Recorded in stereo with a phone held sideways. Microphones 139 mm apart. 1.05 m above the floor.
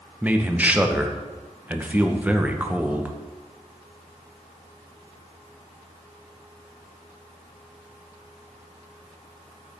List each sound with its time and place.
0.2 s a man speaking: 10° right (ahead or behind), 0.7 m